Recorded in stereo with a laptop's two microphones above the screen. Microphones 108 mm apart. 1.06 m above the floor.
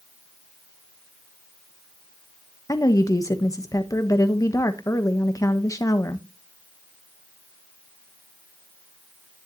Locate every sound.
2.7 s a woman speaking: 30° left (ahead or behind), 1.0 m